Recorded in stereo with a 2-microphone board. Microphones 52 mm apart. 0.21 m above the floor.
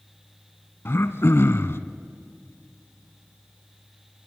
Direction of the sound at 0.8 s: 55° left (ahead or behind).